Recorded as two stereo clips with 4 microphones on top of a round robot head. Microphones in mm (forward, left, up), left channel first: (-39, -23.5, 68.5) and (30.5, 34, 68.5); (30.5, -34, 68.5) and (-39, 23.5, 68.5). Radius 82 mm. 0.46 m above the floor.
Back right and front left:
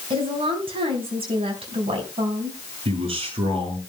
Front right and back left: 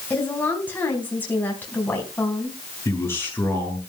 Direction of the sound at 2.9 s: 25° left.